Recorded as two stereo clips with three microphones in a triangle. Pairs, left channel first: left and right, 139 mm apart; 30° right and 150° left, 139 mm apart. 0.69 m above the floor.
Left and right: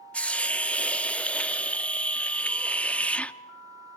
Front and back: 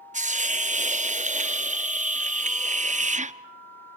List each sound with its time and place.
0.1 s a hiss: 170° left, 0.5 m